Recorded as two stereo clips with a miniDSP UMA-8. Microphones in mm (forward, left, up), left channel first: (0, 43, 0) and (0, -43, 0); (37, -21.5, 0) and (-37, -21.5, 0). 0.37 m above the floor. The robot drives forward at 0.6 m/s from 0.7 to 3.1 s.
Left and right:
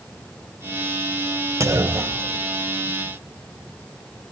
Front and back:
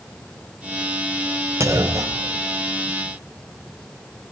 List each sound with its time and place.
1.6 s a clunk: 135° right, 0.9 m; by 3.0 s 160° right, 1.5 m